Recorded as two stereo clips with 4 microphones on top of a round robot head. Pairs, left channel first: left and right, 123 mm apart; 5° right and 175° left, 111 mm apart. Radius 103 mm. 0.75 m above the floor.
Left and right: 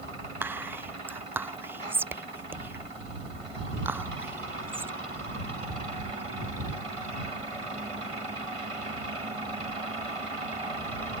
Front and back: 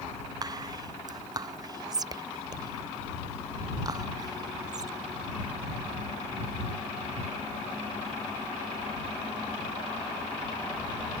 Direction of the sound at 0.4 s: 155° right.